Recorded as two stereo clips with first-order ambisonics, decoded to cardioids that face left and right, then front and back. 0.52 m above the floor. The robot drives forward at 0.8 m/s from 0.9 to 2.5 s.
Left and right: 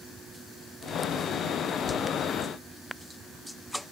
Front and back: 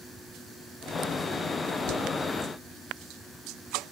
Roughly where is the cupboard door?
Ahead left.